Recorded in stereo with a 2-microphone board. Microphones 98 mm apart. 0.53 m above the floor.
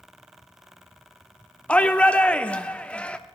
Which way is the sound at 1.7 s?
10° left (ahead or behind).